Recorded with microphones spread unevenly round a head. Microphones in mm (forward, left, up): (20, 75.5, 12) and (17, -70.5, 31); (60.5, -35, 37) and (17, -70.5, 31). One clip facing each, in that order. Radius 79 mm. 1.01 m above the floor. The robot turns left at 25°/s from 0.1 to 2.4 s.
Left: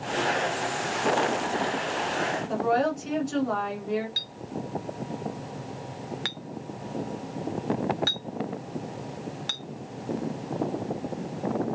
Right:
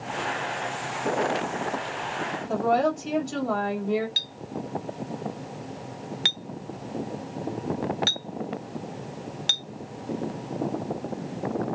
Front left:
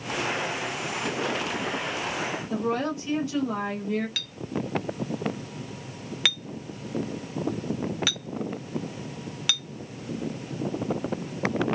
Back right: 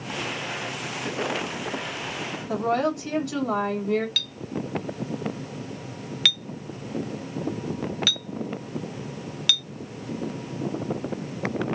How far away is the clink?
About 1.0 m.